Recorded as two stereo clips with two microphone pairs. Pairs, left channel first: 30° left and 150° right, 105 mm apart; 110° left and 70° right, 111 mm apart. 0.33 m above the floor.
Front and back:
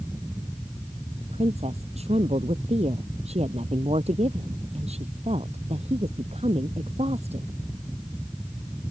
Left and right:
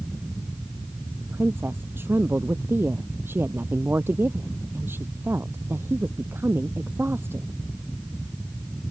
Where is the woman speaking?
140° right.